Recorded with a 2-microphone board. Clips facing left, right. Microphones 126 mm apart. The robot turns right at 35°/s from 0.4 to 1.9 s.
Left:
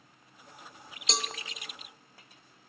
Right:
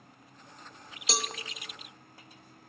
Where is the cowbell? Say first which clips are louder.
Right 1 dB; 5° right (ahead or behind), 0.5 m; by 1.3 s 10° right (ahead or behind), 0.5 m.